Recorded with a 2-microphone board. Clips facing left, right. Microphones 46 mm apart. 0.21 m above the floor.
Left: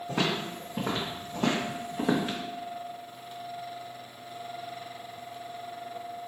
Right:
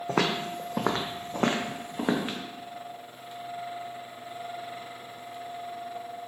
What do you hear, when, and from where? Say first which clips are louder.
0.1 s footsteps: right 3 dB; 60° right (ahead or behind), 0.7 m; by 2.4 s 20° right (ahead or behind), 0.9 m